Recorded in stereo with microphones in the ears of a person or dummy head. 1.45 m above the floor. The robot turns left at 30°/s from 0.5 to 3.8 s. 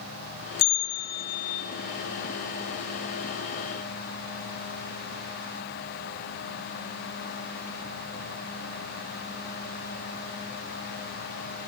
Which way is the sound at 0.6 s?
85° left.